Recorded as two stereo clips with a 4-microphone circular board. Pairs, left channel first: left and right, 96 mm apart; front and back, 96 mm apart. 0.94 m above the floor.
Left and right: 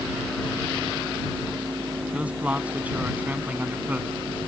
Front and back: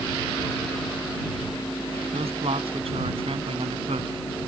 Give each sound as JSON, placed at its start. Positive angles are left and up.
{"t": 2.1, "sound": "a man speaking", "azimuth_deg": -165}